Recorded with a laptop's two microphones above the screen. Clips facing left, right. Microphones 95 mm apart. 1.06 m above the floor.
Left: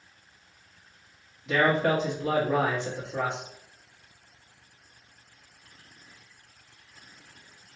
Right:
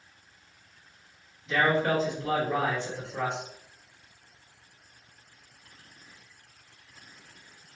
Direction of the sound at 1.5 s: 70° left (ahead or behind).